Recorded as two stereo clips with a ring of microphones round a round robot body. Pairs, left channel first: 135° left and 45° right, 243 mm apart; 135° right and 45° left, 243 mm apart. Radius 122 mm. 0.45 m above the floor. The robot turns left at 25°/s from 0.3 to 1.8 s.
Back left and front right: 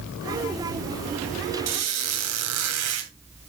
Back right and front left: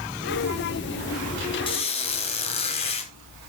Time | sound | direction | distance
1.7 | a squeak | 65° right | 2.5 m